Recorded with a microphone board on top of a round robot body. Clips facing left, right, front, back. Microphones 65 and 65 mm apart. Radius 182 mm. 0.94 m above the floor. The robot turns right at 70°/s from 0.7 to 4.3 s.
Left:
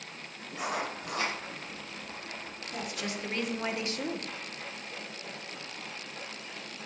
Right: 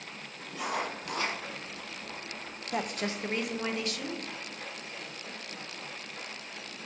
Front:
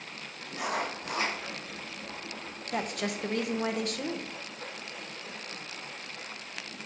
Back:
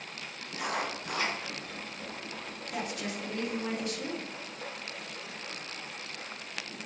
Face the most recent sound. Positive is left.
turn(degrees=55)